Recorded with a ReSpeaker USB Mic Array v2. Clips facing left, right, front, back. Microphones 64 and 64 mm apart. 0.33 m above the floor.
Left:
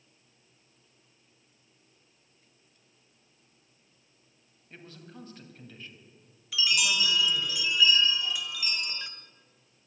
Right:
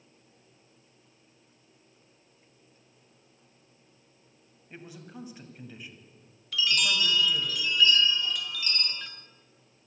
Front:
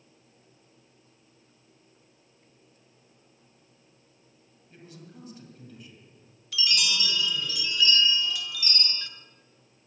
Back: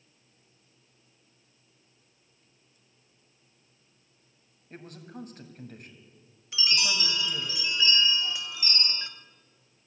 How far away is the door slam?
I don't hear a door slam.